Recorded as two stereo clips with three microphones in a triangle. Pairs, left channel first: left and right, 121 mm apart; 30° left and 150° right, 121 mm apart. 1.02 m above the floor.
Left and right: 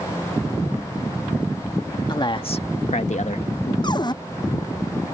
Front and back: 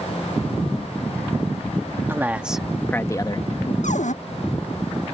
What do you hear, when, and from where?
2.1 s a man speaking: 140° left; by 3.7 s 60° left
3.8 s a cupboard door: 35° left